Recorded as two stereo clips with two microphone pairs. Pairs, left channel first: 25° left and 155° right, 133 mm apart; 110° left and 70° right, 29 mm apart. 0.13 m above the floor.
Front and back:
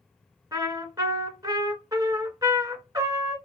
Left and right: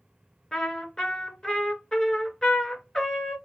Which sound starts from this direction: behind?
A trumpet, at 0.5 s.